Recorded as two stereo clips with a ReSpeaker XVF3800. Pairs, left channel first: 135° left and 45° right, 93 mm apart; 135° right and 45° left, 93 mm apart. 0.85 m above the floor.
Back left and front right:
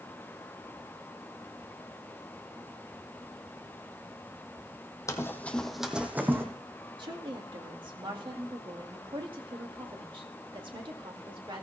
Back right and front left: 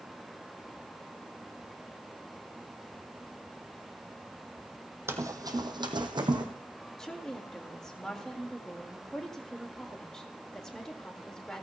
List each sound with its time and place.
5.1 s running footsteps: 95° left, 1.2 m; by 6.5 s 15° left, 1.8 m
7.0 s a woman speaking: 55° right, 1.7 m